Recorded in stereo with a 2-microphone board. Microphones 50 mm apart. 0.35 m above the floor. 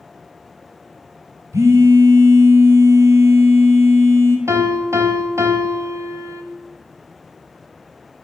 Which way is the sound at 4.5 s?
65° right (ahead or behind).